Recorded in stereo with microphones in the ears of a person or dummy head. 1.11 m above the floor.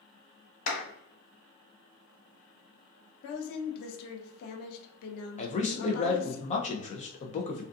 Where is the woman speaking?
55° left (ahead or behind), 0.6 m.